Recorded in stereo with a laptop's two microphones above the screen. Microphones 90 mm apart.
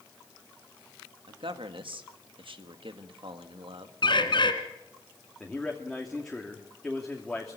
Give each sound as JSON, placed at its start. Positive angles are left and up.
{"t": 1.3, "sound": "a man speaking", "side_deg": -70, "distance_m": 1.6}
{"t": 4.0, "sound": "a bird", "side_deg": 60, "distance_m": 2.0}
{"t": 5.4, "sound": "a man speaking", "side_deg": 5, "distance_m": 2.5}